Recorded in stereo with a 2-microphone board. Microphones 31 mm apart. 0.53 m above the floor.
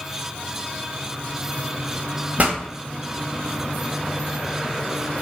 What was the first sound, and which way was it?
A pop, 50° right (ahead or behind).